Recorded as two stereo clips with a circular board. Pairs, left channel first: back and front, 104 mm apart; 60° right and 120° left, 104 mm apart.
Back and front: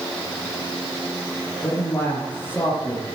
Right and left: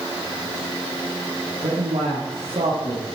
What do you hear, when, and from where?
1.6 s a man speaking: 110° left, 4.5 m